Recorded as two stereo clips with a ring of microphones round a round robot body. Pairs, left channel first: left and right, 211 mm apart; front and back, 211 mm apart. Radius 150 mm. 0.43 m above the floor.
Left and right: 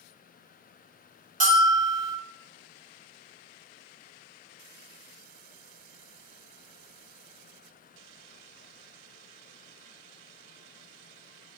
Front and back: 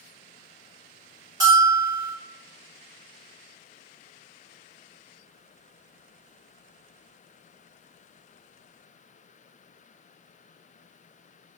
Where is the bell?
115° right, 1.0 m.